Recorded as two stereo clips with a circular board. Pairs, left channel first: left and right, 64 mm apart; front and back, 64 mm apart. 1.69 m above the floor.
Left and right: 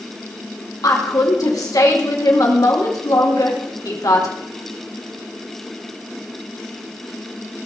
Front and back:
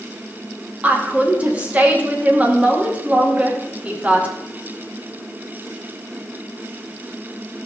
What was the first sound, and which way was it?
A woman speaking, 110° left.